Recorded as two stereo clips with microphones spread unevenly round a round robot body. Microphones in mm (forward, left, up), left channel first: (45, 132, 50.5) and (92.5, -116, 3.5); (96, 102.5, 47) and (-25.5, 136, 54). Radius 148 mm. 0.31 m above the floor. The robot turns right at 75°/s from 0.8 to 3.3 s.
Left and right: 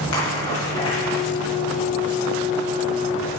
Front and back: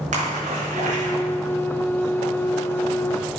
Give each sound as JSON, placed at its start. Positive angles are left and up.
{"t": 0.1, "sound": "a splash", "azimuth_deg": 175, "distance_m": 4.0}